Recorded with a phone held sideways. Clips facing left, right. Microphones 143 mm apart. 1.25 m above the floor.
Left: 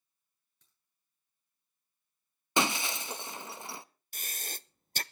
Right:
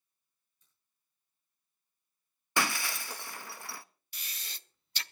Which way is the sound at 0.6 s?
75° left (ahead or behind).